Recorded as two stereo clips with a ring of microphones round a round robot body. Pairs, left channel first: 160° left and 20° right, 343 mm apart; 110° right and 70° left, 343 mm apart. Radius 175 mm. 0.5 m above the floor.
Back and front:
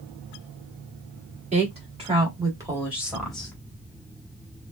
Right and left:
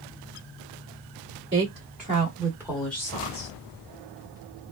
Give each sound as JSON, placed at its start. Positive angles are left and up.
{"t": 1.5, "sound": "a woman speaking", "azimuth_deg": 35, "distance_m": 1.5}